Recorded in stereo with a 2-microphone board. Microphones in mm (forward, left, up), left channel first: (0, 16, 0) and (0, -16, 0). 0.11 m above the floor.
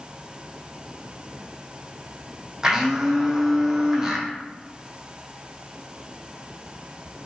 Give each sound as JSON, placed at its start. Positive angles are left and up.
{"t": 2.6, "sound": "a blender", "side_deg": -15, "distance_m": 1.1}